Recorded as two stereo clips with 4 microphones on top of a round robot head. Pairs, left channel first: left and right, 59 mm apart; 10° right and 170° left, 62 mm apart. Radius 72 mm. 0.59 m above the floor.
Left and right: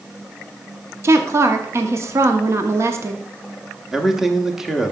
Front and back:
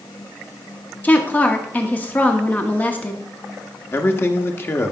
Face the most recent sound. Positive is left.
turn(degrees=-15)